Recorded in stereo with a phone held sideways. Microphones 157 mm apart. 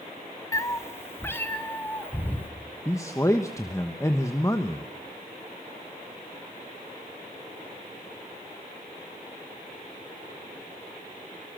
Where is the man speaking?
20° left (ahead or behind), 1.1 m.